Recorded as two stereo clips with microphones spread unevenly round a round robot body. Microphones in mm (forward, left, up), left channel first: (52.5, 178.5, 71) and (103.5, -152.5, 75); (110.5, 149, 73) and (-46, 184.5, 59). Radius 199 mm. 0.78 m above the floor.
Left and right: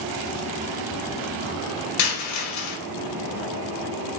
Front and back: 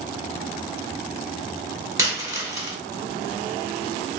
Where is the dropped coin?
95° left, 1.4 m.